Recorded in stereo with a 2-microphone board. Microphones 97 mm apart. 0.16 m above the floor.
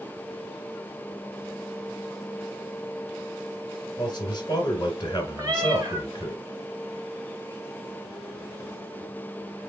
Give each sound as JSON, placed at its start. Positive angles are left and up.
{"t": 4.0, "sound": "a man speaking", "side_deg": 45, "distance_m": 2.0}
{"t": 5.4, "sound": "a cat meowing", "side_deg": -35, "distance_m": 1.5}